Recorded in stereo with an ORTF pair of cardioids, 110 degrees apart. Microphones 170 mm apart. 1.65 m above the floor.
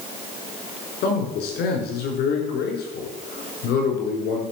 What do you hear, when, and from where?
1.0 s a man speaking: 70° left, 5 m